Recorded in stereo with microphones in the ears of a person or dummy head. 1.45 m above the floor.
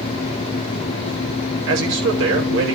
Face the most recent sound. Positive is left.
turn(degrees=-75)  # may be behind; listen again after turning